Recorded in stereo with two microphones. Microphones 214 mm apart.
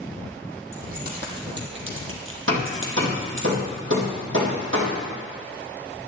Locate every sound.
0.7 s keys jangling: 40° right (ahead or behind), 3.5 m; by 3.5 s 60° right (ahead or behind), 3 m
2.5 s hammering: 65° right (ahead or behind), 4 m